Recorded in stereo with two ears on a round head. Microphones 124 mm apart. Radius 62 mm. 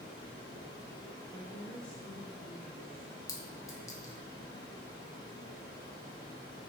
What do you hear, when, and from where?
0.0 s running water: 30° left (ahead or behind), 1.2 m
1.3 s a woman speaking: 15° left (ahead or behind), 1.4 m
3.3 s a clink: 25° left (ahead or behind), 0.6 m